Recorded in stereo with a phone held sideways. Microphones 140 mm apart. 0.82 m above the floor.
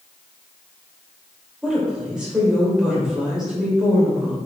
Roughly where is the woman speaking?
Centre.